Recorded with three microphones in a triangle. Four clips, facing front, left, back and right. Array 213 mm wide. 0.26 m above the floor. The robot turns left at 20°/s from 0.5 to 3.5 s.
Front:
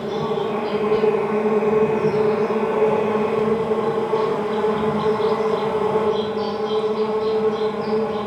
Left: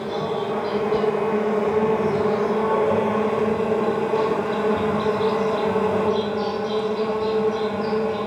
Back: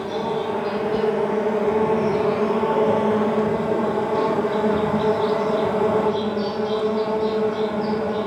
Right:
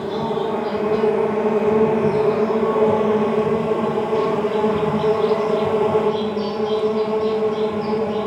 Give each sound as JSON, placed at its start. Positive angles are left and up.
{"t": 0.0, "sound": "an insect", "azimuth_deg": -65, "distance_m": 1.0}